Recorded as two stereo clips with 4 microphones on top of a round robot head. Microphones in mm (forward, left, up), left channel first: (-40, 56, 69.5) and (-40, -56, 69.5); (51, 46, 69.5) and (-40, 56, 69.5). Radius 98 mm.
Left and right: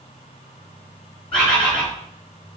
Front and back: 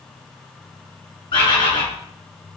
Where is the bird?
5° left, 4.5 m.